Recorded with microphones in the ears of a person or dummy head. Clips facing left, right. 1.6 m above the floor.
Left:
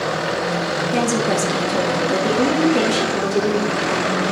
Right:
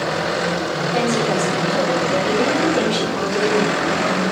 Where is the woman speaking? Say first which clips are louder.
Even; 45° left (ahead or behind), 1.4 m; by 4.3 s 10° left (ahead or behind), 3 m.